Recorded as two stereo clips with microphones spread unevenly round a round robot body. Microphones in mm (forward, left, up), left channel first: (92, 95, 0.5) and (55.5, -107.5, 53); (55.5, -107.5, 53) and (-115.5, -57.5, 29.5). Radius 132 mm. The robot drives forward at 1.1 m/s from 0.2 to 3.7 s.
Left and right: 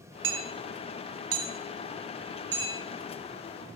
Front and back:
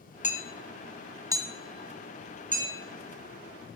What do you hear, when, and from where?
0.2 s hammering: 65° right, 1.2 m; by 2.8 s 155° right, 2.5 m